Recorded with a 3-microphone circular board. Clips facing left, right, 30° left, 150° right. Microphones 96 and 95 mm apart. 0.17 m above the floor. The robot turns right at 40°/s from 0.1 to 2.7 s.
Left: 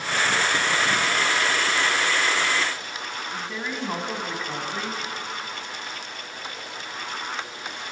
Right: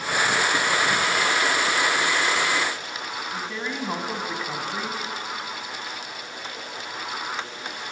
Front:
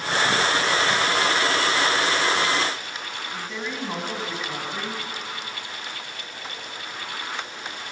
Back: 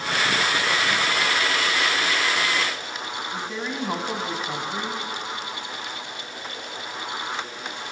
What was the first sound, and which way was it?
A woman speaking, 170° right.